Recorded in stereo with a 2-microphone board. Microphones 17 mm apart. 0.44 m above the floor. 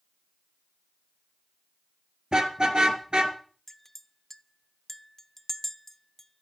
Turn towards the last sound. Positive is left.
turn(degrees=20)  # may be behind; listen again after turning